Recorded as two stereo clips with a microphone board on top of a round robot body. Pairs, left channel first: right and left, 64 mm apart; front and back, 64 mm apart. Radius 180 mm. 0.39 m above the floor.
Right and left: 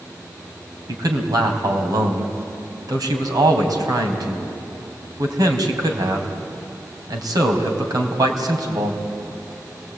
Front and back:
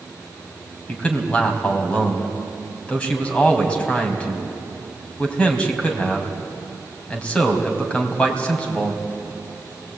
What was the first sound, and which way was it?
A man speaking, 75° left.